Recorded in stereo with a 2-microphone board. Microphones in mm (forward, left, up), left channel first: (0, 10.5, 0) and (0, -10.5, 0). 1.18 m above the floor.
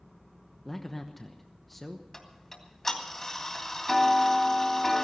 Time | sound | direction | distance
0.7 | a man speaking | 10° left (ahead or behind) | 1.0 m
2.1 | ticking | 15° left (ahead or behind) | 2.5 m